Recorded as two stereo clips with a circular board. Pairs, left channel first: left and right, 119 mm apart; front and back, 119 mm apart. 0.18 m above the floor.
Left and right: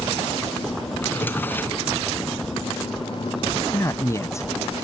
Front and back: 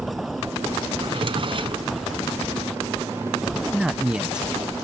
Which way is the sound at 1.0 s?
160° left.